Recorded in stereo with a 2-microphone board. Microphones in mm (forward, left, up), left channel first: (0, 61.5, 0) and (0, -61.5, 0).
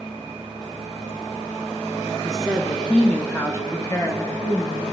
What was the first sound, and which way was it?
A woman speaking, 5° right (ahead or behind).